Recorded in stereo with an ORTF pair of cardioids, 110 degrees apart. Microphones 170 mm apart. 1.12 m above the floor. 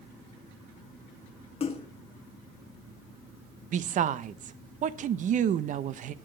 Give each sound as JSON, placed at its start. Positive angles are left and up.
{"t": 1.6, "sound": "a splash", "azimuth_deg": 35, "distance_m": 1.5}
{"t": 3.7, "sound": "a woman speaking", "azimuth_deg": -50, "distance_m": 0.8}